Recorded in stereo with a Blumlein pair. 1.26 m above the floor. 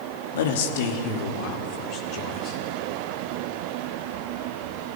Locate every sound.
0.3 s a man speaking: 60° left, 2 m; by 2.6 s 35° left, 5 m